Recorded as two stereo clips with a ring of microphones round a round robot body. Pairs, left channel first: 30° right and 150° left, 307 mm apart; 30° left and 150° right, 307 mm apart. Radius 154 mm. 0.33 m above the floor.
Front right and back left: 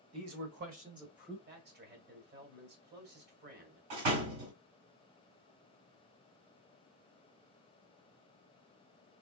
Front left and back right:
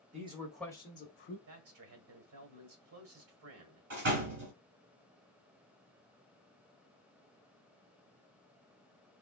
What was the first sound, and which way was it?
A man speaking, 150° left.